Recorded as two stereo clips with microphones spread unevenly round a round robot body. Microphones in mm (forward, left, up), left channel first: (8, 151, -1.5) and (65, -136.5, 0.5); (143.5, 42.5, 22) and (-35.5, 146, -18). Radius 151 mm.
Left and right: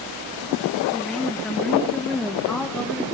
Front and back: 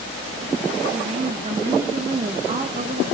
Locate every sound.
0.9 s a woman speaking: 170° right, 0.6 m